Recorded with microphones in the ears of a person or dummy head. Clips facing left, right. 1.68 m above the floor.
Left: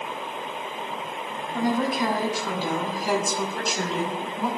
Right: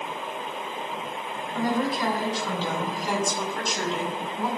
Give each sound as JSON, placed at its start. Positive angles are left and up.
{"t": 1.5, "sound": "a woman speaking", "side_deg": 15, "distance_m": 6.5}